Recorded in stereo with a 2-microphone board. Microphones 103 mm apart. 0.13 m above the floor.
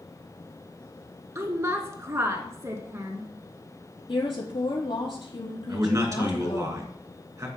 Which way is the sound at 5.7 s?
30° right (ahead or behind).